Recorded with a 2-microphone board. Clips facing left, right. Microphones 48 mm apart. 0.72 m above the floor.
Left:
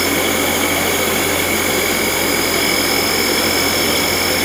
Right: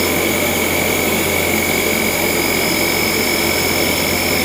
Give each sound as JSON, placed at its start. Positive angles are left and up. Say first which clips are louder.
{"t": 0.0, "sound": "an insect", "louder": "even", "side_deg": 65, "distance_m": 4.5}